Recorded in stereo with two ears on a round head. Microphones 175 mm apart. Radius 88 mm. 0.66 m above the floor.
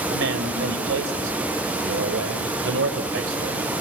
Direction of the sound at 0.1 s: 75° right (ahead or behind).